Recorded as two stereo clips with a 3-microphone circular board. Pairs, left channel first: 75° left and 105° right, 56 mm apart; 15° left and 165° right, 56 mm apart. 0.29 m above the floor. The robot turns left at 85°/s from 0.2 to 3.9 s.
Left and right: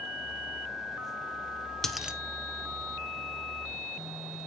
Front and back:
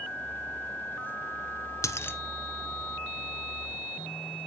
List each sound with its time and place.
1.8 s a dropped coin: 10° right, 1.1 m; by 2.2 s 40° right, 1.1 m